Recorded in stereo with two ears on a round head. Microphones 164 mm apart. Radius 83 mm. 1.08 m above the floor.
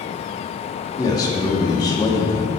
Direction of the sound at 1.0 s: 20° left (ahead or behind).